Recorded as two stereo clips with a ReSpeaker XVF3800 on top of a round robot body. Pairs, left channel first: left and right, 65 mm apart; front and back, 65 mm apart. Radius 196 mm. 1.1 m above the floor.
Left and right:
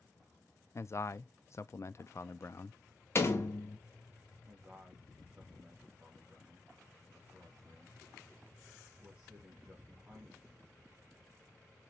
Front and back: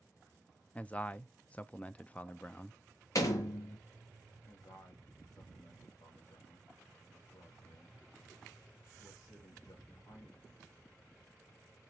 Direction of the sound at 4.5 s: 15° right.